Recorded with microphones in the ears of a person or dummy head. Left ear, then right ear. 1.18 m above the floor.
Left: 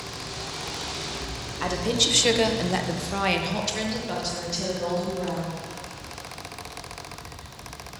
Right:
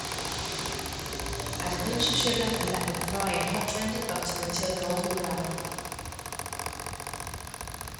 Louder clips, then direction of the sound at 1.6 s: Left 5 dB; 40° left (ahead or behind).